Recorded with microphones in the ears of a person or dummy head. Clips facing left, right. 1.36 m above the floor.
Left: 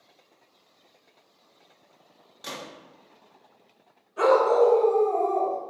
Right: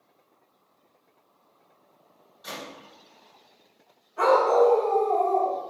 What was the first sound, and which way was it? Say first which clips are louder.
A gunshot: even; 80° left.